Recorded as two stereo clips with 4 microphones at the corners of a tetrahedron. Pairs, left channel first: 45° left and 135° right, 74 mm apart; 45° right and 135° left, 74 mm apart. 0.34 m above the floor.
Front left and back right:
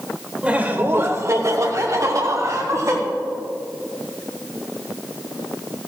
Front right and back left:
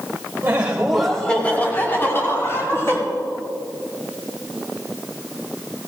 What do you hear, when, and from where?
0.4 s laughter: 160° left, 1.3 m; by 3.0 s 95° right, 3.5 m